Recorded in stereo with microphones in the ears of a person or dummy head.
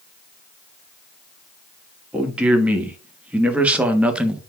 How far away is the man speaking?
About 2.5 m.